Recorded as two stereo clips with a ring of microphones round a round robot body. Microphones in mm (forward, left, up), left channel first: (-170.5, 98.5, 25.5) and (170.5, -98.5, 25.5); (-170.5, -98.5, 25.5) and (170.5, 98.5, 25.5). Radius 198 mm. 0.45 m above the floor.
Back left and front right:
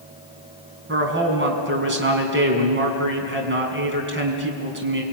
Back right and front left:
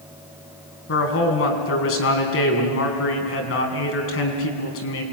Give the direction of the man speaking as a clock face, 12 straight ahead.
3 o'clock.